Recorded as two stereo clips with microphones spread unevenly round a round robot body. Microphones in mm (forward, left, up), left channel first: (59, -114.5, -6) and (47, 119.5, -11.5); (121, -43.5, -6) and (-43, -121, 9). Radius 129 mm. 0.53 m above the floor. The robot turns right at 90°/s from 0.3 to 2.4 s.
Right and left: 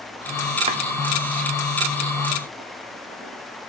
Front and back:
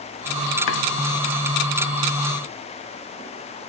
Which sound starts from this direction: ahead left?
Chopping, at 0.7 s.